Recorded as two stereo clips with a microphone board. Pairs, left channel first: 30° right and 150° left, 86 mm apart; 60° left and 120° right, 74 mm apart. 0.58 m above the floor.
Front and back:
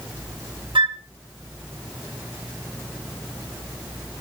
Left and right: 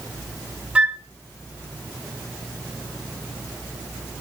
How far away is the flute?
About 0.5 m.